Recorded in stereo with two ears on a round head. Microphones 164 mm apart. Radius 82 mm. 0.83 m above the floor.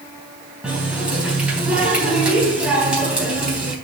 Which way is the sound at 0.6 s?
5° right (ahead or behind).